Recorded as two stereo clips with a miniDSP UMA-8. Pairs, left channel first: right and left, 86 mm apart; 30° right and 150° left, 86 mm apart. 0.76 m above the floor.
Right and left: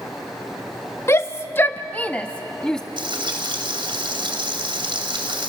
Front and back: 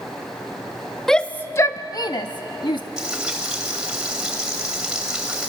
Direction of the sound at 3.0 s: 70° left.